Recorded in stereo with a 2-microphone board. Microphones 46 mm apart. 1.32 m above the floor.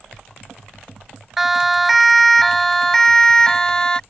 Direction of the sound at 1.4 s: 5° right (ahead or behind).